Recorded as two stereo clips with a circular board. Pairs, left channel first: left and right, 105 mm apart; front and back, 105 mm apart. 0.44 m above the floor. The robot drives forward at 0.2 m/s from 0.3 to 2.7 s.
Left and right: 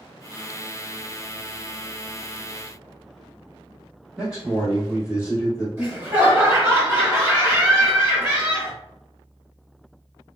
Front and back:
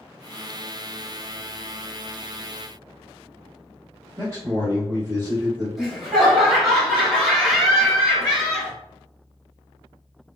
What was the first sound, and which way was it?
A man speaking, 160° right.